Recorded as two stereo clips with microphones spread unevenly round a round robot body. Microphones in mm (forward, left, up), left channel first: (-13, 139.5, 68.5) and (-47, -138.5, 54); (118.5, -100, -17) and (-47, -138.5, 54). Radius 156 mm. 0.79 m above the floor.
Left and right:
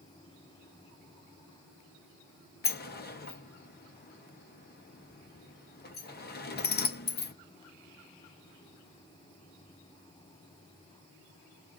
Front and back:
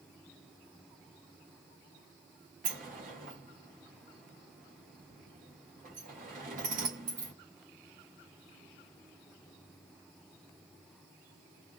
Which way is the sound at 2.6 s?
130° left.